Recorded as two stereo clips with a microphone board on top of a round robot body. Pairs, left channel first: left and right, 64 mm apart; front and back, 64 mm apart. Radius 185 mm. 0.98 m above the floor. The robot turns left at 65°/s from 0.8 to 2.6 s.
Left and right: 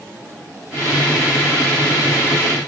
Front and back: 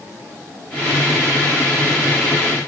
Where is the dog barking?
No dog barking in this recording.